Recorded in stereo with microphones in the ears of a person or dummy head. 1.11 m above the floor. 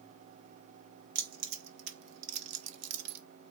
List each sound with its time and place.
1.1 s keys jangling: 45° right (ahead or behind), 1.2 m; by 3.2 s 65° right (ahead or behind), 1.2 m